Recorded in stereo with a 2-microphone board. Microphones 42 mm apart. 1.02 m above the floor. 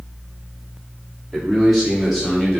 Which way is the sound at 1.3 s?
5° right (ahead or behind).